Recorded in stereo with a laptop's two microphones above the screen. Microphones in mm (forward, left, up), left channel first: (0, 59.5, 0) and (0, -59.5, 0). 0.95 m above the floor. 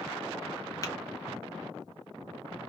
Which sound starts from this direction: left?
Tapping, at 0.8 s.